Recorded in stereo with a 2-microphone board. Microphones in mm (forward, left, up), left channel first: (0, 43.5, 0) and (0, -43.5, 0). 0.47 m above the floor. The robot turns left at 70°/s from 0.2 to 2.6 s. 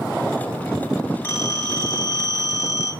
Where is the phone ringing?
140° left, 1.6 m; by 2.9 s 45° left, 1.6 m.